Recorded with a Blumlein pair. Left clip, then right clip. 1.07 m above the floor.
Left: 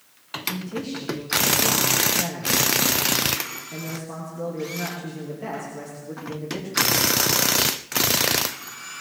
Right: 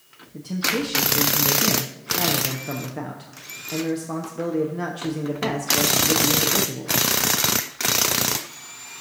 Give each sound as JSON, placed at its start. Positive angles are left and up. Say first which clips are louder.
{"t": 0.3, "sound": "a man speaking", "louder": "right 5 dB", "azimuth_deg": -70, "distance_m": 1.1}